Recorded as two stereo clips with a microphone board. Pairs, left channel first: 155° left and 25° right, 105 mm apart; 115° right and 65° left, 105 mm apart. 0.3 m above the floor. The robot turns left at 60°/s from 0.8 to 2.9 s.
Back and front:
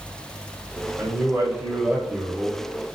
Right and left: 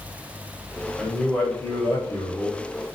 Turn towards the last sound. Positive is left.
turn(degrees=-140)